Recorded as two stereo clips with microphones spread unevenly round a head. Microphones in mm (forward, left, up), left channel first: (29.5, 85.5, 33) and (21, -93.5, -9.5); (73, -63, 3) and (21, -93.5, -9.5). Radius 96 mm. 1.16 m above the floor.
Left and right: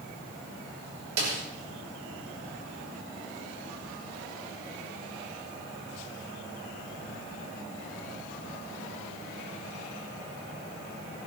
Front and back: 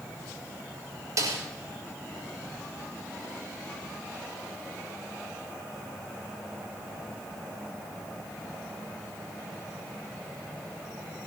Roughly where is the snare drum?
Behind right.